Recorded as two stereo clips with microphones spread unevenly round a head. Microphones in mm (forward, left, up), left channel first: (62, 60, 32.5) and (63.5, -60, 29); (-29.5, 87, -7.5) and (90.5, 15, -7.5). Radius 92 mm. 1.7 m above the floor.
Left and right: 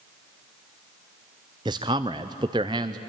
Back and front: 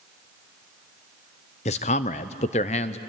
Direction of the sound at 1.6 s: 160° right.